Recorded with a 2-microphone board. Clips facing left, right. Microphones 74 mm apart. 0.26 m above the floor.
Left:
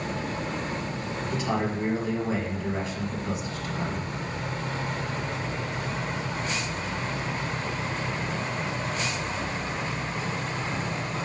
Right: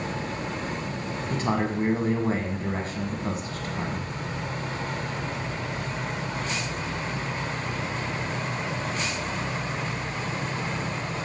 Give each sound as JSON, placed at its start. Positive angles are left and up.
{"t": 1.3, "sound": "a man speaking", "side_deg": -50, "distance_m": 1.7}